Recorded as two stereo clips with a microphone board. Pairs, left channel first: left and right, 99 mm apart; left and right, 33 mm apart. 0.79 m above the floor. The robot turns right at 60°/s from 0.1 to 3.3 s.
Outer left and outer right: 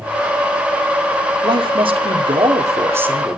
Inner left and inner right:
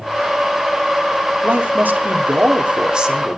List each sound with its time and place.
1.4 s a man speaking: 120° right, 2 m; by 3.4 s 10° right, 2 m